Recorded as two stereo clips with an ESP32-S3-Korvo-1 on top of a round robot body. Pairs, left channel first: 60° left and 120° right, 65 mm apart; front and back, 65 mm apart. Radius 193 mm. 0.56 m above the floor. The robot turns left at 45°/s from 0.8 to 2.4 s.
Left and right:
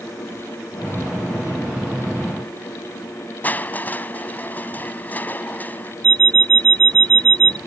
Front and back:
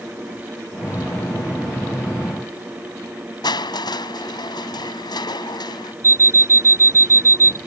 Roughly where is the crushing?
Ahead.